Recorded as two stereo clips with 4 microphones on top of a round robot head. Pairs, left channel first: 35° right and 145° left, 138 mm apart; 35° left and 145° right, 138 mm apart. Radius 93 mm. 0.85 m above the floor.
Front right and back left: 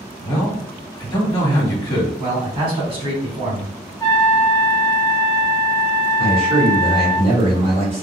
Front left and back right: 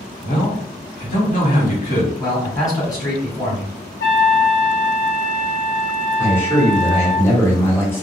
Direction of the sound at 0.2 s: 25° left.